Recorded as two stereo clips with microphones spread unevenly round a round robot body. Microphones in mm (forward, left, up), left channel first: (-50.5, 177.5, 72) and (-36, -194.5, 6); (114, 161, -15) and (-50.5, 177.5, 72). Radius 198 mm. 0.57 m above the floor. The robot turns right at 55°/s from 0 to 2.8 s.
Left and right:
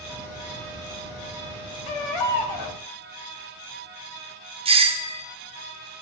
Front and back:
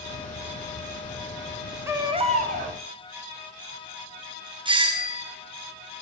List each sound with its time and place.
1.9 s a baby crying: 90° left, 2.5 m; by 2.7 s 135° left, 2.5 m
4.7 s a doorbell: 90° right, 1.1 m